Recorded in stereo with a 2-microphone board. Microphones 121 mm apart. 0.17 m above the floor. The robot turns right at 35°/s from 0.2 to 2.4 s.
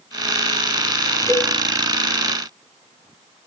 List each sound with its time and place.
1.3 s a cowbell: 20° left (ahead or behind), 1.5 m; by 1.5 s 25° left (ahead or behind), 1.5 m